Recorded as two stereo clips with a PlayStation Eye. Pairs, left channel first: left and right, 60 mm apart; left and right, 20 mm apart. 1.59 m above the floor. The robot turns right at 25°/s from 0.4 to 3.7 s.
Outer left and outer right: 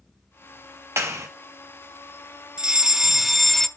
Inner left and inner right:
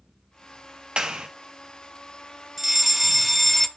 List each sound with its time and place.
1.0 s a clap: 50° right (ahead or behind), 2 m; by 1.3 s 60° right (ahead or behind), 2 m
2.6 s a fire alarm: 15° right (ahead or behind), 0.7 m; by 3.7 s 5° left (ahead or behind), 0.7 m